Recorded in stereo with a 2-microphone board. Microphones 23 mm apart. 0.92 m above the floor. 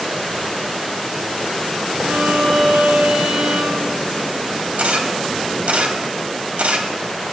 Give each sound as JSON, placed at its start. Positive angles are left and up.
{"t": 2.0, "sound": "a violin", "side_deg": -75, "distance_m": 9.0}
{"t": 4.8, "sound": "a camera shutter", "side_deg": -70, "distance_m": 2.0}